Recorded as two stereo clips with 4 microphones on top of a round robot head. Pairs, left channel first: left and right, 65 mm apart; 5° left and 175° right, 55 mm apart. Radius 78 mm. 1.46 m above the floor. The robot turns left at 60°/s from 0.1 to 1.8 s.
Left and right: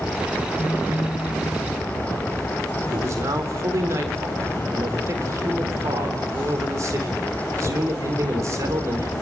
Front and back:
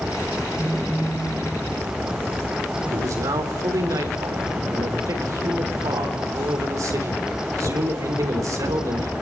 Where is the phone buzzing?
40° left, 5 m; by 1.5 s 15° right, 5 m.